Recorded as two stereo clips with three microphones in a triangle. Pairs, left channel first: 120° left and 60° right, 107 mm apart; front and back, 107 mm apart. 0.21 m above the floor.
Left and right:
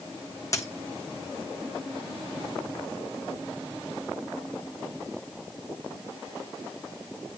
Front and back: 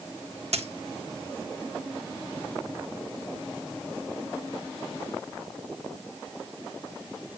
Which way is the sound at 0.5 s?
Straight behind.